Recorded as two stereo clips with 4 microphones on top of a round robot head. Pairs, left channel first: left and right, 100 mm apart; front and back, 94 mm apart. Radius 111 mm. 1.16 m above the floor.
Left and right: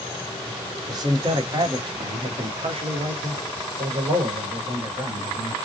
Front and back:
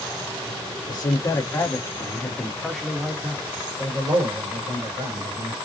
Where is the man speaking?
40° right, 1.6 m; by 5.6 s 145° right, 2 m.